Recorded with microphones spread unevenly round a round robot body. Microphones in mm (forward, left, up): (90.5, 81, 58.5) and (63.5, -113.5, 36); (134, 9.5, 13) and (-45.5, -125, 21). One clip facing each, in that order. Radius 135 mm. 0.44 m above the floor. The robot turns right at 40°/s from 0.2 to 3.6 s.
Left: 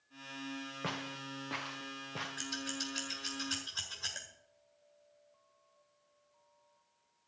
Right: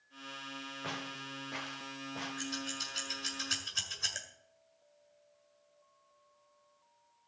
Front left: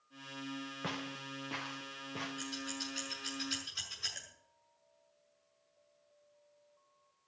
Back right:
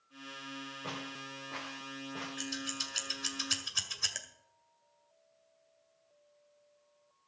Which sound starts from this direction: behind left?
Scissors, at 2.4 s.